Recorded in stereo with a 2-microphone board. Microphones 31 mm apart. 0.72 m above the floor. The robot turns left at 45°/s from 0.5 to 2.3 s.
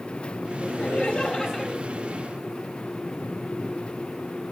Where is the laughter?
55° left, 2 m; by 1.7 s 5° left, 2 m.